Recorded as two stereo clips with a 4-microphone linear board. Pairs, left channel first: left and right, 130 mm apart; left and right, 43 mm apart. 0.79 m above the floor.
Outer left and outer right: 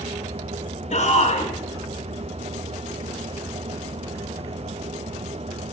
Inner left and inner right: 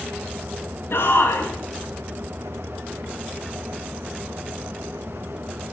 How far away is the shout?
About 8 m.